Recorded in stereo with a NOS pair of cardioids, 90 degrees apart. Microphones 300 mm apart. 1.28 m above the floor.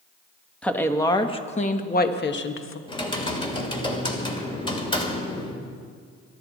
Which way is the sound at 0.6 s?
5° left.